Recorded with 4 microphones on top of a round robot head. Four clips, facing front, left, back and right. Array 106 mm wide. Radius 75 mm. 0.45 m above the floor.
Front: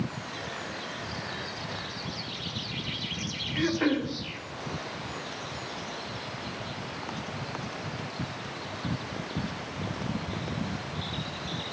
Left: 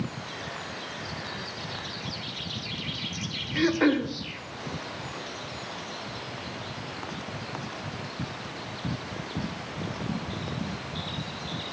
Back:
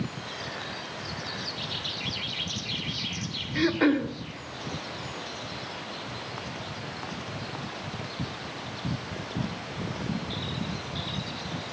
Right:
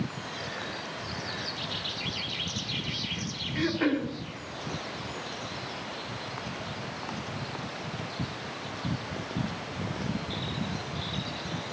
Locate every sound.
3.5 s throat clearing: 130° left, 1.4 m